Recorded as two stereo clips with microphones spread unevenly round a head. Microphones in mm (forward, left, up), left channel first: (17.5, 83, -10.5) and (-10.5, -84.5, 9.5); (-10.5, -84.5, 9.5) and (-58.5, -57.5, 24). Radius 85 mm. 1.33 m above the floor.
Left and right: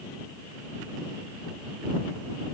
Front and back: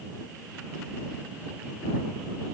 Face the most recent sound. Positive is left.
No sound to turn to.